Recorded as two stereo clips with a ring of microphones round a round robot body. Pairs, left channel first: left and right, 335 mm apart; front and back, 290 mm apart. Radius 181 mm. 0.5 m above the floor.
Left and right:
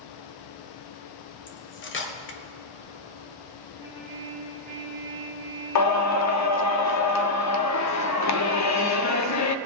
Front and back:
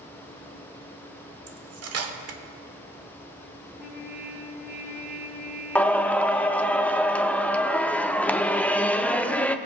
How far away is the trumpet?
About 4 m.